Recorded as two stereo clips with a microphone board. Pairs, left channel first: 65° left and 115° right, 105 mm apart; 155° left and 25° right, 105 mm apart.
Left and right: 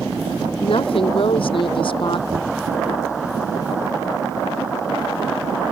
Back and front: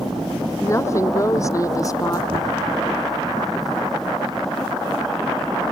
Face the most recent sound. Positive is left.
turn(degrees=-65)